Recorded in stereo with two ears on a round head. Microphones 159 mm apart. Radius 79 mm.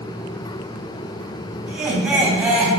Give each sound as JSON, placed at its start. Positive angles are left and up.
{"t": 1.7, "sound": "laughter", "side_deg": -5, "distance_m": 3.0}